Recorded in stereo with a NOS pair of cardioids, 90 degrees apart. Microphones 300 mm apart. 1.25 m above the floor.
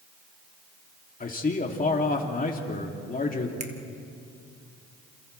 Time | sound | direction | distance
1.2 | a man speaking | 30° left | 3 m
3.6 | a finger snap | 25° right | 1.9 m